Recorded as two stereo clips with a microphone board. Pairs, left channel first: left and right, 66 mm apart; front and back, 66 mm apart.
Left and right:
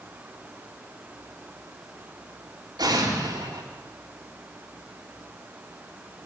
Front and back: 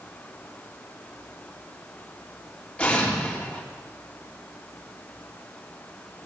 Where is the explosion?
75° right, 3.5 m.